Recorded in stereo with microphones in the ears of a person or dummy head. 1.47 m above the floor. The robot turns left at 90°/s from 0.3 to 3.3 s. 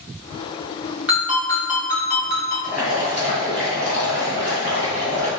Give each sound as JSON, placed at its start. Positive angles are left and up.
{"t": 1.1, "sound": "a ringtone", "azimuth_deg": -170, "distance_m": 1.3}
{"t": 2.6, "sound": "boiling", "azimuth_deg": 5, "distance_m": 1.3}